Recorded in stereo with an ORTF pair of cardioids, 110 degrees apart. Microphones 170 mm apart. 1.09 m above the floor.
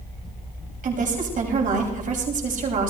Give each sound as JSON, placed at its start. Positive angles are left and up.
{"t": 0.8, "sound": "a woman speaking", "azimuth_deg": -50, "distance_m": 6.5}